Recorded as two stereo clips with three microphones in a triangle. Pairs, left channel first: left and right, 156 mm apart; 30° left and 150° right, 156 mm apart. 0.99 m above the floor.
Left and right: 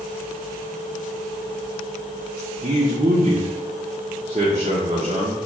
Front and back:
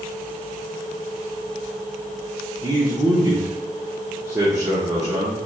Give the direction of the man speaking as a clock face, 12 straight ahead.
3 o'clock.